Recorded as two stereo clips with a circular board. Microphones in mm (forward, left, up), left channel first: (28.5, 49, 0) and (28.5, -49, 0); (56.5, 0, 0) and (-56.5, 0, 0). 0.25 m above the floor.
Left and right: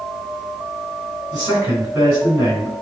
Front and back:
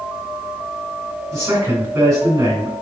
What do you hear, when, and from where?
1.3 s a man speaking: 145° right, 1.8 m